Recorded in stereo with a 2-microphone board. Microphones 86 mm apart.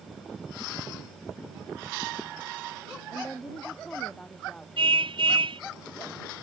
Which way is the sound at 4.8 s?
75° right (ahead or behind).